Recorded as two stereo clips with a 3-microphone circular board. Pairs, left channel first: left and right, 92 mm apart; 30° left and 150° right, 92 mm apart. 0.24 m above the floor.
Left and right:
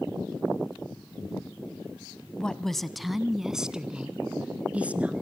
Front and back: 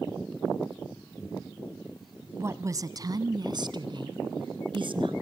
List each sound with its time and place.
2.4 s a woman speaking: 165° left, 1.5 m; by 5.1 s 165° right, 3 m